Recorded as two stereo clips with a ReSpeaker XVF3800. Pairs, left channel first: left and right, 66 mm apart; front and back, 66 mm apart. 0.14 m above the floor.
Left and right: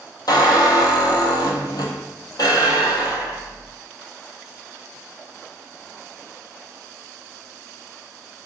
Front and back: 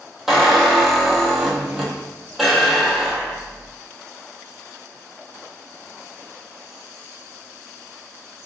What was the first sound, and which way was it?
A squeak, 90° left.